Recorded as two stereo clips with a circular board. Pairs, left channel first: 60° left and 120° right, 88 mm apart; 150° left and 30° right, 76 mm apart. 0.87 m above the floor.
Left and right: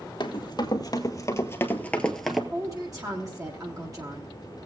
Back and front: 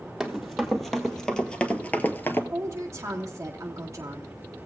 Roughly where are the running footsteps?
Ahead left.